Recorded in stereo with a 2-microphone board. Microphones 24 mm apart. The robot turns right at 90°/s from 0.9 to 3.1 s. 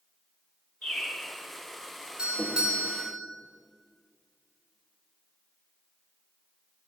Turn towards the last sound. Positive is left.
turn(degrees=-25)